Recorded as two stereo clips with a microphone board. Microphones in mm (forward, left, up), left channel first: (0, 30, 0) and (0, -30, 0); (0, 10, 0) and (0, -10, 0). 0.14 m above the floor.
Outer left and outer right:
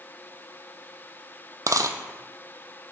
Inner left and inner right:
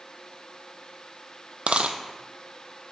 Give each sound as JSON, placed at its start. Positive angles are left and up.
{"t": 1.7, "sound": "a dropped coin", "side_deg": -65, "distance_m": 0.6}